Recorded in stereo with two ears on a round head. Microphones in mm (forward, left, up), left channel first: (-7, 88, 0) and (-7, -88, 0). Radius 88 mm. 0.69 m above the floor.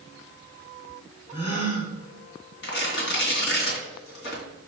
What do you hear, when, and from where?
1.3 s a gasp: 35° left (ahead or behind), 2.5 m
2.6 s tearing paper: 60° left (ahead or behind), 2.5 m